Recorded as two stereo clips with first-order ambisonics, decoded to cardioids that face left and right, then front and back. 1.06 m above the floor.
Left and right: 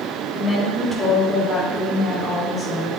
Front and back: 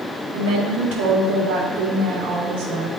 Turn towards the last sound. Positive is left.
turn(degrees=175)